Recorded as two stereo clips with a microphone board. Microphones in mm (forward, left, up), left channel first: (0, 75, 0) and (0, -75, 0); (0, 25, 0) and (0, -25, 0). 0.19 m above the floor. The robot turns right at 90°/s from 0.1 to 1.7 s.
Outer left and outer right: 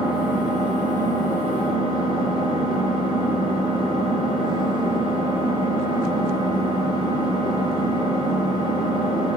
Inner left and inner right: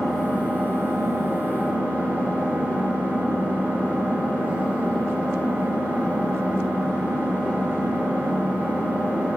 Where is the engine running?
Straight behind, 1.5 m; by 9.4 s 35° right, 1.5 m.